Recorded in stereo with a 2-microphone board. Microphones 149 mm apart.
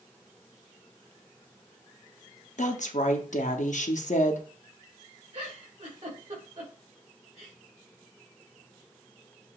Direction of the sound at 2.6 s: 55° left (ahead or behind).